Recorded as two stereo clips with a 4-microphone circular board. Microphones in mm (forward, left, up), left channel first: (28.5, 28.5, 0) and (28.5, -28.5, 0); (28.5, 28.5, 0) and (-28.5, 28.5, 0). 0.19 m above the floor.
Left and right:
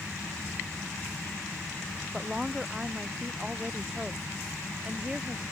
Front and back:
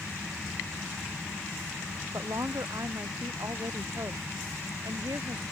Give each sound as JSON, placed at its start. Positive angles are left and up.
{"t": 2.1, "sound": "a woman speaking", "azimuth_deg": -170}